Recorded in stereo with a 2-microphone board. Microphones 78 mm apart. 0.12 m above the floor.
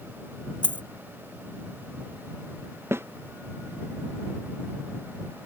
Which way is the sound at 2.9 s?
30° right (ahead or behind).